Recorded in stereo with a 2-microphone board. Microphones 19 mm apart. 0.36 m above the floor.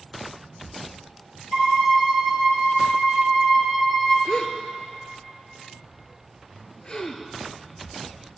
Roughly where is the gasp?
Left.